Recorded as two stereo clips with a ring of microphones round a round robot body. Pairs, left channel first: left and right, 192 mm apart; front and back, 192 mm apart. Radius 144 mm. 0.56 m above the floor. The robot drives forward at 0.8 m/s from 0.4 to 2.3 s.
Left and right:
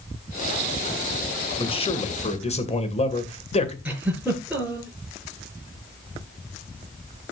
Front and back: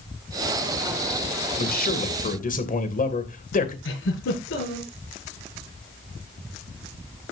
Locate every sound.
1.6 s a man speaking: 30° left, 3 m; by 3.8 s 40° left, 2.5 m
3.9 s a giggle: 5° right, 6 m